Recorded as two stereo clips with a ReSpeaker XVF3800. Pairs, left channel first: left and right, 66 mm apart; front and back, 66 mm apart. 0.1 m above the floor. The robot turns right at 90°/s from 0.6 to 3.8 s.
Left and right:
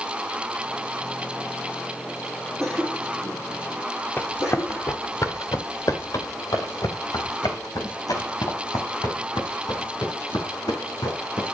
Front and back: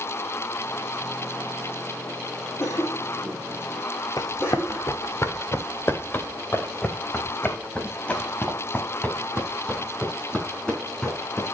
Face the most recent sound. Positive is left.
turn(degrees=80)